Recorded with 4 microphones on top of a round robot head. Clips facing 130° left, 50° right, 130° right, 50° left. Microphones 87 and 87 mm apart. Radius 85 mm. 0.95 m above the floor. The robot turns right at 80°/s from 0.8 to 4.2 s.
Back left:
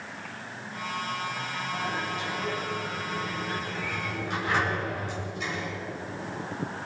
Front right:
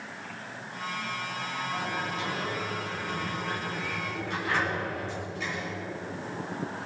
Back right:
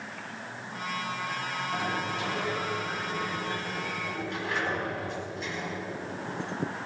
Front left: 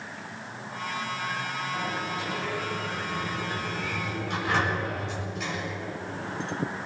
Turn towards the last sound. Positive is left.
turn(degrees=50)